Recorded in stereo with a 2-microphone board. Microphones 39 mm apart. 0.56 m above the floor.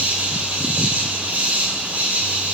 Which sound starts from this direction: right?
An insect, at 0.0 s.